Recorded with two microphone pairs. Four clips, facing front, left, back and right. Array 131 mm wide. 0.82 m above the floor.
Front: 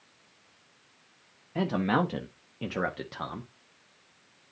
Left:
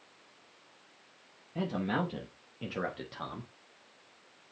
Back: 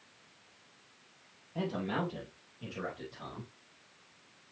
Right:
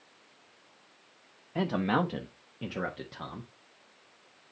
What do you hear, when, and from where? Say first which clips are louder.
1.6 s a man speaking: right 4 dB, front 8 dB; 70° right, 1.0 m; by 3.5 s 30° left, 1.5 m